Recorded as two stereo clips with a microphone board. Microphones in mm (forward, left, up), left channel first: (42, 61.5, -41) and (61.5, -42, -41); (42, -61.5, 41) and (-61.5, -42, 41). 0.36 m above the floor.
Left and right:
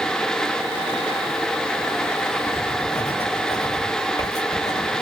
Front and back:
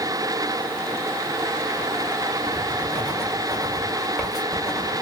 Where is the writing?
85° left, 1.4 m.